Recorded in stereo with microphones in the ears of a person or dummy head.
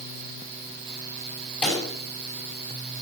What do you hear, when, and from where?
1.6 s a pop: 10° left (ahead or behind), 6 m